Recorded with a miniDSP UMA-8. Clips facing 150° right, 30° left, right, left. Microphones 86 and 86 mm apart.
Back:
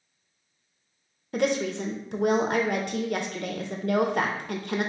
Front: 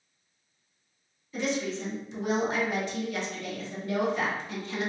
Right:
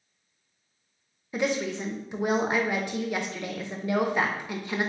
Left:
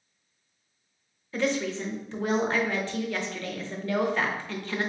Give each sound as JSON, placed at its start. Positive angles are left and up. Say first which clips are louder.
{"t": 1.3, "sound": "a woman speaking", "louder": "back 5 dB, even", "azimuth_deg": -165, "distance_m": 0.6}